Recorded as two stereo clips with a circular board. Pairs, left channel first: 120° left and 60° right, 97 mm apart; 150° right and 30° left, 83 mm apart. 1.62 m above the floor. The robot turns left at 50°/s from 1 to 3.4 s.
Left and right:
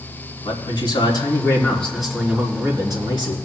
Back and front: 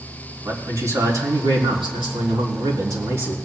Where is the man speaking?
80° left, 3.5 m; by 3.4 s 35° right, 3.5 m.